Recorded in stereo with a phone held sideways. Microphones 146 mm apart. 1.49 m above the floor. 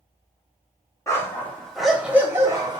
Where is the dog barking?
20° left (ahead or behind), 1.0 m; by 2.8 s 30° right (ahead or behind), 0.9 m.